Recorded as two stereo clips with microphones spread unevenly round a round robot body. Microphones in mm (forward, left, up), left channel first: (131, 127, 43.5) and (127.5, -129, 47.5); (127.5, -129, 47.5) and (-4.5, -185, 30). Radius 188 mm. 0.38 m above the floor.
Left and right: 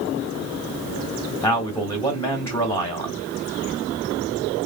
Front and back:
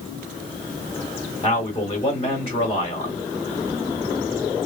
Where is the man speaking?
20° left, 1.4 m.